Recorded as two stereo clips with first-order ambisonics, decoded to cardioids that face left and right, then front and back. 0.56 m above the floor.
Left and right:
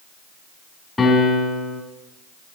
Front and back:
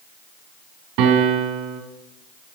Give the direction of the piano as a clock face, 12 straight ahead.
6 o'clock.